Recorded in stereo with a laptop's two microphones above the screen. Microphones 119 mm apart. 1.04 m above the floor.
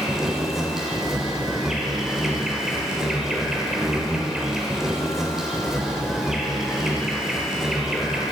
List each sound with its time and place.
0.0 s an insect: 5° right (ahead or behind), 1.0 m